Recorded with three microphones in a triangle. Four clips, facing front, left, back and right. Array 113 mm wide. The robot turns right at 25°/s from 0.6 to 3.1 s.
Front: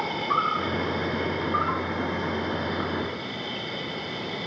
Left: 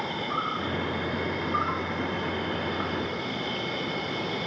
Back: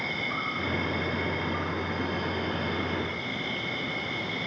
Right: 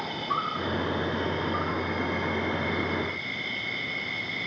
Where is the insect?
5° right, 1.2 m; by 4.5 s 55° left, 1.2 m.